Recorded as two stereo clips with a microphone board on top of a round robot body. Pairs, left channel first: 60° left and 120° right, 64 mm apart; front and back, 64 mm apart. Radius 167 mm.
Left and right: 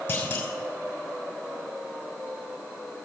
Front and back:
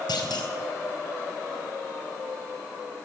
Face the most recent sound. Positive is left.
turn(degrees=-5)